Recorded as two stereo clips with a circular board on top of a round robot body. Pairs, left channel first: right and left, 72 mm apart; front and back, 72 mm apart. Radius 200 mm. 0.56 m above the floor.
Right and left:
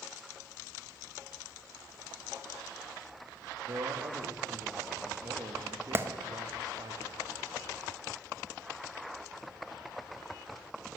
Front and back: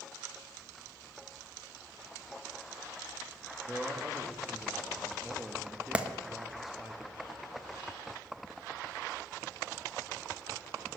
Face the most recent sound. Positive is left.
turn(degrees=120)